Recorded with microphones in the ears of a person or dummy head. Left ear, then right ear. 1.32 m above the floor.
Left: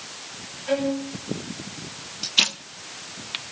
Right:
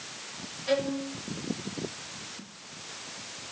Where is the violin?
45° right (ahead or behind), 7.5 m.